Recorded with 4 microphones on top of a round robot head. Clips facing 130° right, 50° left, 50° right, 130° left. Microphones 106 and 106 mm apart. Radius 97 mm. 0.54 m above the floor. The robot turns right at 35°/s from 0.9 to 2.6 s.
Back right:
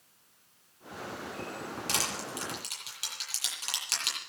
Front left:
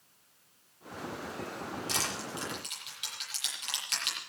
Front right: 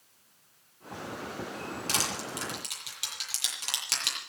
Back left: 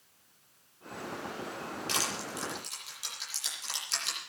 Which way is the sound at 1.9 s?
100° right.